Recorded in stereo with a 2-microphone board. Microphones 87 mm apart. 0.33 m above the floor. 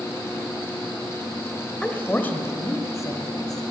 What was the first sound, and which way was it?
A woman speaking, 10° left (ahead or behind).